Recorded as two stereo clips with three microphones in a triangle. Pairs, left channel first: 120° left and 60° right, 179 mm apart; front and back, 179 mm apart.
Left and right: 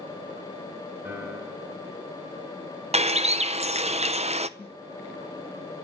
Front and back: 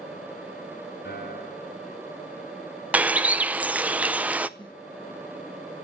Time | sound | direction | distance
1.1 | a piano | 15° left | 5 m
2.9 | a bird | 100° right | 0.6 m
4.6 | a snare drum | 65° left | 5.5 m